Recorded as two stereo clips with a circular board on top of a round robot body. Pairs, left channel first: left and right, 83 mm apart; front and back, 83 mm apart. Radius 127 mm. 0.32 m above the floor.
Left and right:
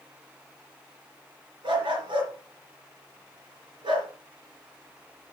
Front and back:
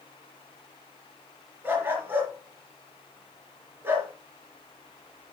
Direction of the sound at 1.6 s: 115° right.